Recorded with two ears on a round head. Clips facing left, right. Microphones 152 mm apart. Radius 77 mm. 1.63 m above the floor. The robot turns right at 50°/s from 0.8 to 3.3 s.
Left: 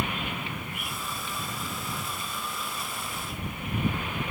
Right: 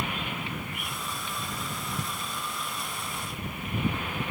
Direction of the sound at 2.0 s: 30° right (ahead or behind).